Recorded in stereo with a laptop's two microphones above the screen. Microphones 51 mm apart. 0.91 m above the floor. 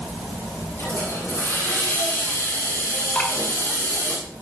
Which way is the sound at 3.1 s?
35° left (ahead or behind).